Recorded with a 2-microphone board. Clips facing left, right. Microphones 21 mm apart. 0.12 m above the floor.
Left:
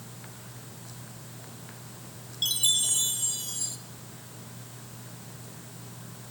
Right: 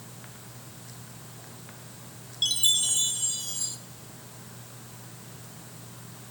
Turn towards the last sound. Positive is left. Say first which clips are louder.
# right 2 dB
turn(degrees=-10)  # may be behind; listen again after turning